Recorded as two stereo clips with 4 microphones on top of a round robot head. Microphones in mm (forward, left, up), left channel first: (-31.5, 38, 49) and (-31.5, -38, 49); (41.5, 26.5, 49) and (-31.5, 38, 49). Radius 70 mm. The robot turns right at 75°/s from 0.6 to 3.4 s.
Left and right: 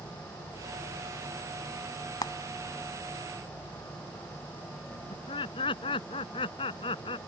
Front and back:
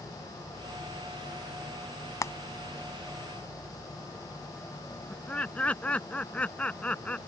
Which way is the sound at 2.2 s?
40° left.